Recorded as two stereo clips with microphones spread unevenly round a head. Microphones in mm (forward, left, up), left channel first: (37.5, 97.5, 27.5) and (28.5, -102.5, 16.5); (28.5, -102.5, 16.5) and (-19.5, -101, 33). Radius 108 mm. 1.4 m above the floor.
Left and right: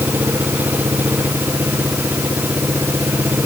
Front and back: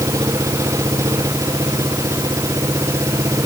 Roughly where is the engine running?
Behind.